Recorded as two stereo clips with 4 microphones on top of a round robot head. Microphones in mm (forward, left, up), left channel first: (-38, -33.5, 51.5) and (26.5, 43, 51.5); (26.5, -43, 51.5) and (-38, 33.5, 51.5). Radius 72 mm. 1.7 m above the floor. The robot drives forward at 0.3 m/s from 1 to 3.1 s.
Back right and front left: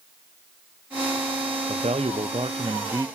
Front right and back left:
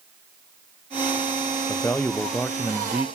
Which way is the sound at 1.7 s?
20° left.